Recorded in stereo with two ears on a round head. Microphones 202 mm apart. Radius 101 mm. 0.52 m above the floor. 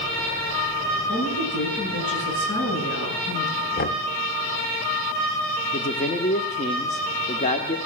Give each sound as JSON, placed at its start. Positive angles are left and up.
{"t": 1.1, "sound": "a woman speaking", "side_deg": 55, "distance_m": 8.0}
{"t": 3.8, "sound": "knocking", "side_deg": 40, "distance_m": 1.0}
{"t": 5.7, "sound": "a man speaking", "side_deg": 30, "distance_m": 1.4}